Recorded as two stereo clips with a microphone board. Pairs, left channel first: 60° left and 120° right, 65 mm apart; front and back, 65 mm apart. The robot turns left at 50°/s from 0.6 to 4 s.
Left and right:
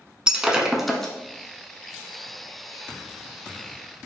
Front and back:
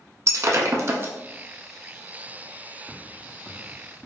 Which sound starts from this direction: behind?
Breaking glass, at 0.3 s.